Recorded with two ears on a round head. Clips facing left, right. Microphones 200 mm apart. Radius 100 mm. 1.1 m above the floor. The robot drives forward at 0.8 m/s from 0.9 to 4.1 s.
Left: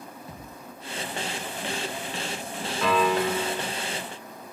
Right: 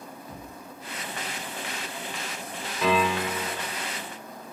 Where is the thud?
30° left (ahead or behind), 3 m.